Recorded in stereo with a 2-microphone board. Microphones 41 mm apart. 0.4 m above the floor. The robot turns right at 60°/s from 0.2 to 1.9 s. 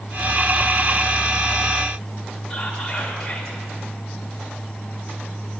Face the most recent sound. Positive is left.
turn(degrees=15)  # may be behind; listen again after turning